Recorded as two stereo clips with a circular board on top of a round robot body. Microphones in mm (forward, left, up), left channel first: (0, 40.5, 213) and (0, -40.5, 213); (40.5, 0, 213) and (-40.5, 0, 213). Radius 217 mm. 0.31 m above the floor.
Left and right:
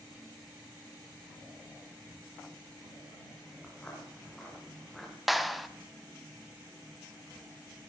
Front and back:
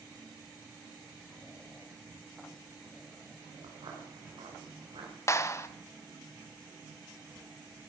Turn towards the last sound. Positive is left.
turn(degrees=0)